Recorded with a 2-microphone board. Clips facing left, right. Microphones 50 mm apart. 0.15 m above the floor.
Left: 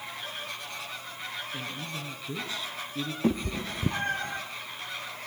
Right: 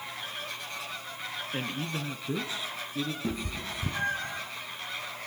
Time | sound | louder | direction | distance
1.5 | a man speaking | right 3 dB | 45° right (ahead or behind) | 1.6 m
3.2 | a cat meowing | left 6 dB | 50° left (ahead or behind) | 1.3 m